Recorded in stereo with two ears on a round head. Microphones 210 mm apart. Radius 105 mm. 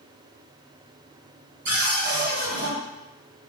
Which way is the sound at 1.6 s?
50° right (ahead or behind).